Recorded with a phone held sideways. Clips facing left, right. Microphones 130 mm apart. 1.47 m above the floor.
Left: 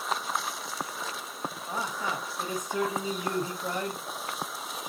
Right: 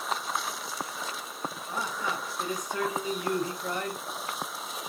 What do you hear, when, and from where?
1.7 s a man speaking: 25° left (ahead or behind), 1.3 m